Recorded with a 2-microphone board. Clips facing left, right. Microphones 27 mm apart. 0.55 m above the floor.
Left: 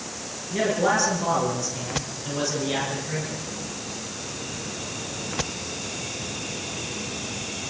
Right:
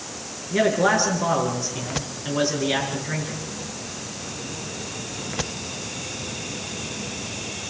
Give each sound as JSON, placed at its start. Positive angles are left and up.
{"t": 0.5, "sound": "a man speaking", "side_deg": -30, "distance_m": 7.0}